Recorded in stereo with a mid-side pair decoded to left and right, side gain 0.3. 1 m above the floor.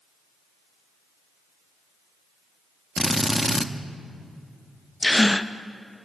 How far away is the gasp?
About 0.5 m.